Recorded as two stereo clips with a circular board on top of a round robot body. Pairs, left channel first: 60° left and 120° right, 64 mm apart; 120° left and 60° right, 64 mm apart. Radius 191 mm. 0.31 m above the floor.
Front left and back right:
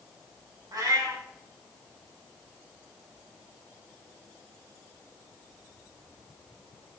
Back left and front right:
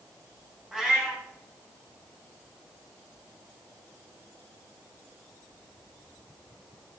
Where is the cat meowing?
140° right, 2 m.